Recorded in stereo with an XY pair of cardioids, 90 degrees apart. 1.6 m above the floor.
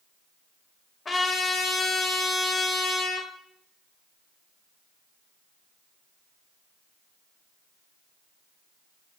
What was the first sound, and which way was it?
A trumpet, 35° left.